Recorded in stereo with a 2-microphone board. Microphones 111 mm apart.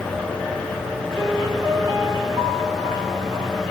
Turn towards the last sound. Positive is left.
turn(degrees=-30)  # may be behind; listen again after turning